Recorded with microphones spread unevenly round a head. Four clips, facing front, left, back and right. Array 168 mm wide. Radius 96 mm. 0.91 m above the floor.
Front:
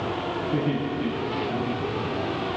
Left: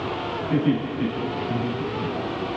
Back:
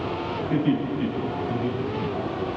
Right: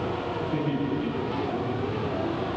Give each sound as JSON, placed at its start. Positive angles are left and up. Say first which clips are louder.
{"t": 0.5, "sound": "laughter", "louder": "left 6 dB, back 4 dB", "azimuth_deg": 115, "distance_m": 7.0}